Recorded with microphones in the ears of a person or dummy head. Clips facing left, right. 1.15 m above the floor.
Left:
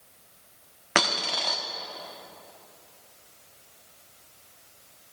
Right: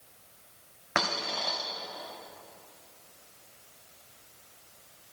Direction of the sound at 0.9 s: 40° left (ahead or behind).